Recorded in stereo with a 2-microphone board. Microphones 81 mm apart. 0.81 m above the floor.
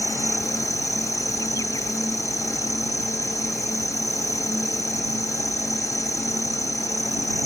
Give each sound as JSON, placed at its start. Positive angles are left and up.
{"t": 0.0, "sound": "an insect", "side_deg": 45}